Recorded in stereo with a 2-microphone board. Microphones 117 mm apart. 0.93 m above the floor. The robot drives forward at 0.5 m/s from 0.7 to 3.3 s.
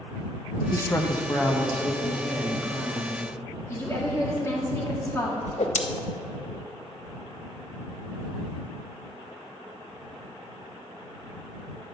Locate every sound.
0.7 s a woman speaking: 25° left (ahead or behind), 0.5 m; by 3.2 s 10° left (ahead or behind), 1.6 m
3.7 s a woman speaking: 25° left (ahead or behind), 1.7 m
5.5 s a whoosh: 80° left, 0.6 m